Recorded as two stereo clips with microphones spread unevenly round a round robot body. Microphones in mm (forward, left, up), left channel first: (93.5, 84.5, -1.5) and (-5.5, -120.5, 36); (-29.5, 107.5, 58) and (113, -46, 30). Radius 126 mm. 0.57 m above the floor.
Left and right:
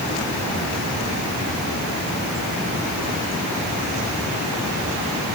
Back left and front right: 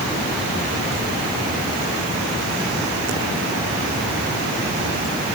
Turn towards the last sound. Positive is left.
No sound to turn to.